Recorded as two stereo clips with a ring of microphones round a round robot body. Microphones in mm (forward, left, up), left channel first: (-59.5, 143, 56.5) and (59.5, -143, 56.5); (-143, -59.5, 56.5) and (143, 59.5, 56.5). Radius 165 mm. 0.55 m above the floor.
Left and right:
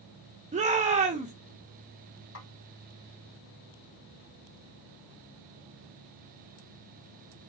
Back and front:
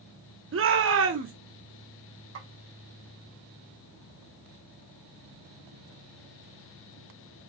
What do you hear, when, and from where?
0.5 s a shout: 5° right, 1.0 m
2.4 s a snare drum: 65° left, 2 m